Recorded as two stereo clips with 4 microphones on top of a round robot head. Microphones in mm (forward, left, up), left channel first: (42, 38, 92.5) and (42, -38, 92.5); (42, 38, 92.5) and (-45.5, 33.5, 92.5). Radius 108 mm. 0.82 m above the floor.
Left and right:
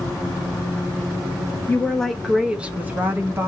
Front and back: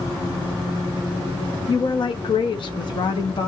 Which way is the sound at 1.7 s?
25° left.